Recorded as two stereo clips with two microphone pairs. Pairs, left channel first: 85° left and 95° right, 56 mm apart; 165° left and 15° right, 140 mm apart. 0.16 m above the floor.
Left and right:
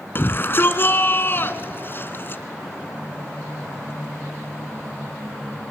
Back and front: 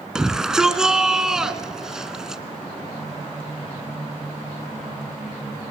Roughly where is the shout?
Left.